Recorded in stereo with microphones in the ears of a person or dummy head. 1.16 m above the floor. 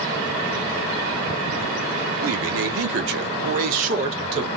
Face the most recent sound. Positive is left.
turn(degrees=-30)  # may be behind; listen again after turning